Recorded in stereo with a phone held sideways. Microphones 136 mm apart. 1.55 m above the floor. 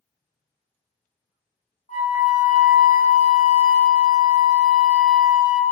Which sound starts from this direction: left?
A flute, at 1.9 s.